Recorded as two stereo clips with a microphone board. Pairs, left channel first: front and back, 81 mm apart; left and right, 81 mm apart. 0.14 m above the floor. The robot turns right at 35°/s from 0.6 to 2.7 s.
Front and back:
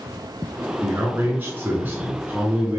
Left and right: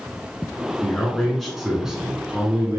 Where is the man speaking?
160° left, 1.6 m; by 2.8 s 135° right, 1.6 m.